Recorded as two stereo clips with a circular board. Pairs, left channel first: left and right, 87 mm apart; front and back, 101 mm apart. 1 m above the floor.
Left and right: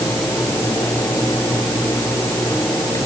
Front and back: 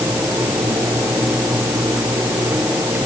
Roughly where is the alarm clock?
No alarm clock in this recording.